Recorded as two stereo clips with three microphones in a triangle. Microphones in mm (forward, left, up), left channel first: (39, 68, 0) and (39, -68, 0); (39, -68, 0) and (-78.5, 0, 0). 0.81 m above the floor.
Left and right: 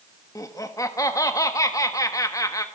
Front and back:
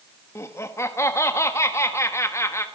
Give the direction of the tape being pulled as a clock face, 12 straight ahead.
No tape being pulled in this recording.